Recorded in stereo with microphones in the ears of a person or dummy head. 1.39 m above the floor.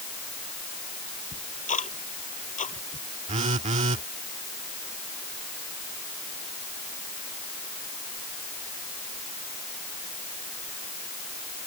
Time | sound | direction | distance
1.3 | ticking | 40° left (ahead or behind) | ?
3.3 | a phone buzzing | 35° right (ahead or behind) | ?